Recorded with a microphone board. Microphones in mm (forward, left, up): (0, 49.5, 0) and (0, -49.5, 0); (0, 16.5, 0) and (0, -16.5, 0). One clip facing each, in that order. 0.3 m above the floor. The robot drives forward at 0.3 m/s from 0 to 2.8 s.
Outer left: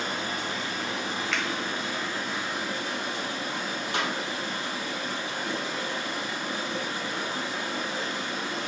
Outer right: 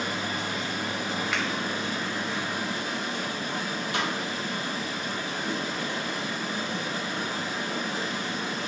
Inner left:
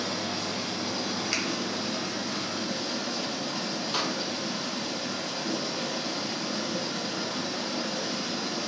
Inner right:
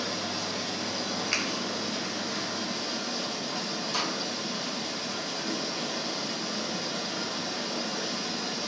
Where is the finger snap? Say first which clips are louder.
Even, inner right 2 dB; 5° right (ahead or behind), 1.0 m.